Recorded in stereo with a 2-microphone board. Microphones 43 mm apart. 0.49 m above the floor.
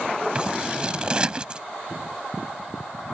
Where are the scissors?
20° right (ahead or behind).